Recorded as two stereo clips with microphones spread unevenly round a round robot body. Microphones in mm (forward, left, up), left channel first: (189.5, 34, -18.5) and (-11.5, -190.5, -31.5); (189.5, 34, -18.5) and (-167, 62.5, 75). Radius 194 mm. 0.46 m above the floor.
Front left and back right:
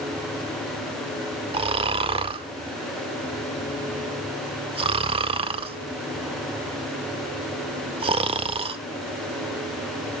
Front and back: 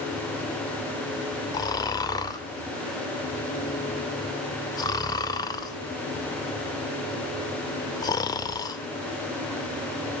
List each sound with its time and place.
1.5 s snoring: 65° right, 0.5 m